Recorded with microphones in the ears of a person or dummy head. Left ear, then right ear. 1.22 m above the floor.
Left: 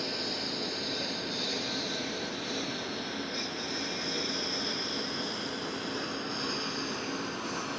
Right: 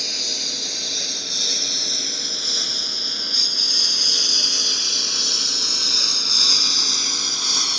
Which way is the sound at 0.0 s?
80° right.